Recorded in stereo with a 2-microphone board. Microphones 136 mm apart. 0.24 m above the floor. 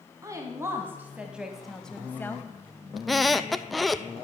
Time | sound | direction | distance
0.2 | a woman speaking | 25° right (ahead or behind) | 1.6 m
3.0 | a squeak | centre (ahead or behind) | 0.5 m